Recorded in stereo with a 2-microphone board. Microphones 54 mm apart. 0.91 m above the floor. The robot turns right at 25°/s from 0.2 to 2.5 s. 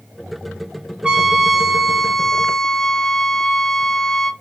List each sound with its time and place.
1.0 s a trumpet: 30° right, 0.7 m; by 4.3 s 10° left, 0.7 m